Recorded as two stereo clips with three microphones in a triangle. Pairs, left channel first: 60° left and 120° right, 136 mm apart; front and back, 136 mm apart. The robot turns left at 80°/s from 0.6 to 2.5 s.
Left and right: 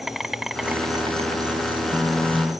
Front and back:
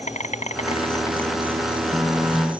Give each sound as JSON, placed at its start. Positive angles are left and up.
{"t": 0.0, "sound": "an insect", "azimuth_deg": -35}